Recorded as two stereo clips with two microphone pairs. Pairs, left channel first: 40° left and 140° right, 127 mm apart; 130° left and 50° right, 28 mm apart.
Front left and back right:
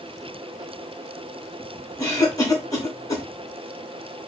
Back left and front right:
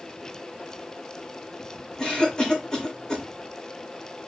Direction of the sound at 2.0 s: 85° left.